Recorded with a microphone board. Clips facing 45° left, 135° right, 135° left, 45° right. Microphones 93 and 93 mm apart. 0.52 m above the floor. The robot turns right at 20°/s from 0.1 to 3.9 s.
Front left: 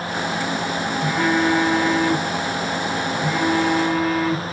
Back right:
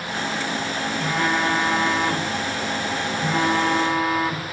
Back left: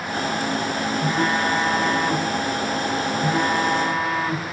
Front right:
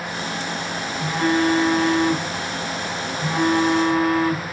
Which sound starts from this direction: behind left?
A phone buzzing, at 1.0 s.